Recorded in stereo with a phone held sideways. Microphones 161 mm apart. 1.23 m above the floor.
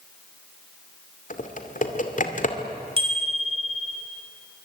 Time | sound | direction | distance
1.3 | typing on a keyboard | 55° left (ahead or behind) | 2.5 m
3.0 | a bicycle bell | 35° right (ahead or behind) | 5 m